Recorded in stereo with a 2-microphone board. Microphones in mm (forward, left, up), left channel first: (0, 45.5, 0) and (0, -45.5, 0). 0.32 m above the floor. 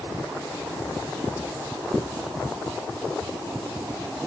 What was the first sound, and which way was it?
Only background noise.